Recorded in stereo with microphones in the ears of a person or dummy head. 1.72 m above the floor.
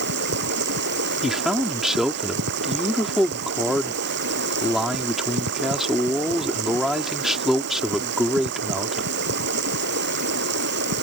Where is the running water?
55° right (ahead or behind).